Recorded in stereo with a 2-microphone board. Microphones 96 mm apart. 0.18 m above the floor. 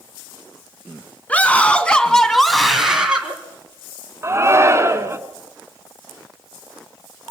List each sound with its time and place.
1.3 s a scream: 15° left (ahead or behind), 2 m; by 3.4 s 15° right (ahead or behind), 1.8 m
4.2 s a shout: 30° right (ahead or behind), 1.9 m